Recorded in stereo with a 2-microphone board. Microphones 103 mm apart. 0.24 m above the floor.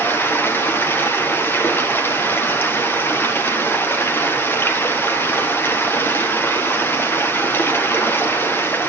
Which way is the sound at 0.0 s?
20° left (ahead or behind).